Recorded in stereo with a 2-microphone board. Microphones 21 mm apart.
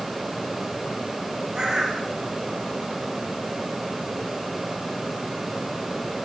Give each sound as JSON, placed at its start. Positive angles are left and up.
{"t": 1.6, "sound": "a bird", "side_deg": -35, "distance_m": 5.0}